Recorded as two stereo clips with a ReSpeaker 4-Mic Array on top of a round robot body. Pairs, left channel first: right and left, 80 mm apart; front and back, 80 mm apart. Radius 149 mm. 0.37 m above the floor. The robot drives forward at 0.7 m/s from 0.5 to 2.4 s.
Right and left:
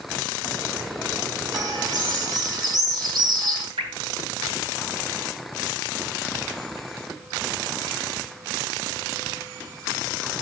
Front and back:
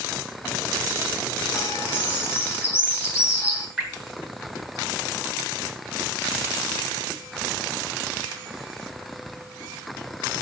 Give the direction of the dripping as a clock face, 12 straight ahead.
9 o'clock.